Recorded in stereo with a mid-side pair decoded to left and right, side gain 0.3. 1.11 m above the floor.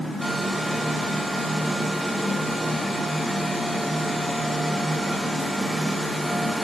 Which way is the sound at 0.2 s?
5° right.